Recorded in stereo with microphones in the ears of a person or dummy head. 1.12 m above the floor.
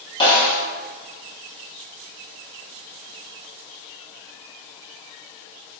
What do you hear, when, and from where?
0.2 s a snare drum: 25° left (ahead or behind), 1.1 m